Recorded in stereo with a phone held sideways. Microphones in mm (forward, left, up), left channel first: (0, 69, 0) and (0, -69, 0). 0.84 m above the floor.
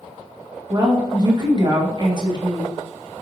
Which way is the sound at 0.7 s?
30° right (ahead or behind).